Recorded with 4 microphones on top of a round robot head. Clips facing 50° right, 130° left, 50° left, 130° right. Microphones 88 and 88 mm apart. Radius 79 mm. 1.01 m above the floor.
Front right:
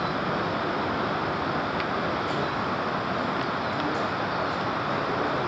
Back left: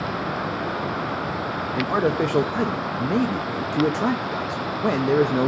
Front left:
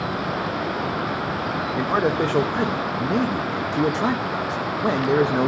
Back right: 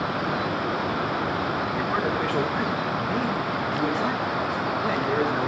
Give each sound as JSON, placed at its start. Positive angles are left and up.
{"t": 1.8, "sound": "a man speaking", "azimuth_deg": 110, "distance_m": 0.7}